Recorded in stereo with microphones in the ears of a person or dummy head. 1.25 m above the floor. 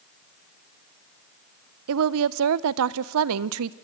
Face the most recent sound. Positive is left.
turn(degrees=-65)  # may be behind; listen again after turning